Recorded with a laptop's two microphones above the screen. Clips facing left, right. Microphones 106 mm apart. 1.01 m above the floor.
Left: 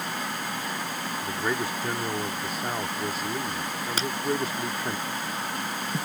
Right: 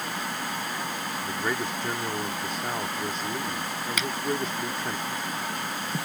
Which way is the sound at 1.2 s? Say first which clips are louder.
Left 1 dB; 5° left (ahead or behind).